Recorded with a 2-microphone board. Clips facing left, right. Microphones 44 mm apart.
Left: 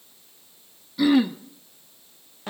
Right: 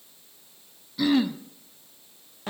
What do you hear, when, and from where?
1.0 s throat clearing: 5° left (ahead or behind), 0.9 m